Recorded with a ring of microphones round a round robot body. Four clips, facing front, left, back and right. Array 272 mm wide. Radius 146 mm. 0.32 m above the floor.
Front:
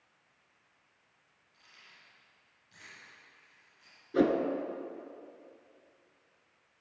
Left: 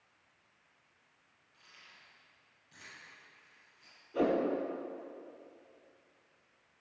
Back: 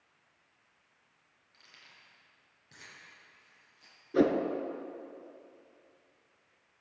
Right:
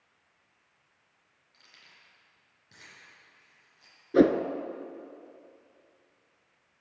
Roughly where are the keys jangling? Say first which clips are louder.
Even, even; behind right.